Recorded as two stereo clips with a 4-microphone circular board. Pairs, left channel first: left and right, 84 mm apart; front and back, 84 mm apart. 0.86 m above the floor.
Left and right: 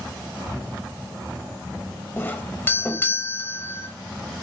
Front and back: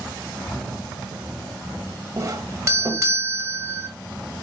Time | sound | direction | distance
2.2 | a doorbell | 145° left | 1.0 m